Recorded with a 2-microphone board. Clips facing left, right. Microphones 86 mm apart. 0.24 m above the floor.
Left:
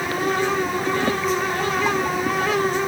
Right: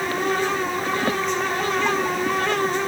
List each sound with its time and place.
Only background noise.